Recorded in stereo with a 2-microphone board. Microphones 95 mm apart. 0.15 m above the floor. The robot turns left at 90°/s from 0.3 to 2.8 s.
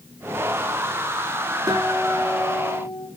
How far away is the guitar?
About 9 m.